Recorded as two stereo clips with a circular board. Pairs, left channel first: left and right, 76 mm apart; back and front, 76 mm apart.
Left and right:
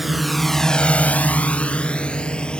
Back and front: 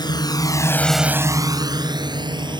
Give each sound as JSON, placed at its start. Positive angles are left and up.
{"t": 0.0, "sound": "a drone", "azimuth_deg": 180}